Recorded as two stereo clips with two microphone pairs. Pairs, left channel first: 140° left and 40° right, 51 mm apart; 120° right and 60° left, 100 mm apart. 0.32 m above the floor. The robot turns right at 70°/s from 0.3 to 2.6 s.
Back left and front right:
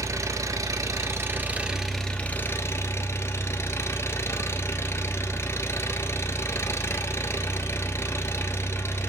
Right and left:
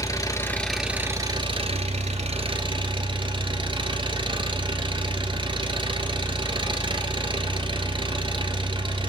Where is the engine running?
60° right, 1.3 m; by 9.1 s 100° left, 1.3 m.